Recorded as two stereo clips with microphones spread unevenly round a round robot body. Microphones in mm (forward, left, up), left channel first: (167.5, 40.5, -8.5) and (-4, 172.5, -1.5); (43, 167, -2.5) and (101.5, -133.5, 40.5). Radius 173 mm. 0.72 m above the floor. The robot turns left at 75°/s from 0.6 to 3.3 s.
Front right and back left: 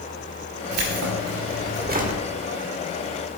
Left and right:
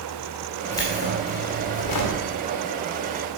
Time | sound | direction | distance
0.7 | keys jangling | 175° right | 1.8 m